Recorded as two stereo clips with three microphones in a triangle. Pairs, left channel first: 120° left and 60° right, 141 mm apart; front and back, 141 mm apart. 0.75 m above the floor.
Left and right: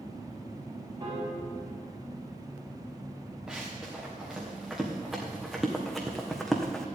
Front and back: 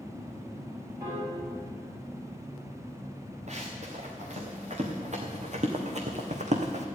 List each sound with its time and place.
1.0 s a piano: 115° right, 5.5 m
3.5 s running footsteps: 145° right, 3.5 m; by 6.8 s 155° right, 1.7 m